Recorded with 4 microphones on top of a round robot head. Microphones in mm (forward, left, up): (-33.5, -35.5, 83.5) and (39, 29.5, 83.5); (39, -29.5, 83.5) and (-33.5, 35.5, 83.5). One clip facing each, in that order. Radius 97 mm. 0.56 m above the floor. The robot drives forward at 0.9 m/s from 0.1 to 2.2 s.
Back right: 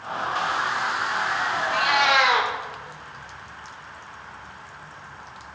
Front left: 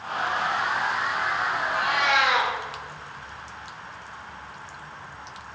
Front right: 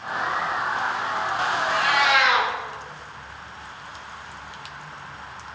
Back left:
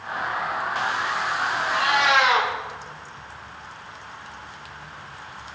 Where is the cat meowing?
145° right, 0.5 m; by 2.5 s 160° right, 0.9 m.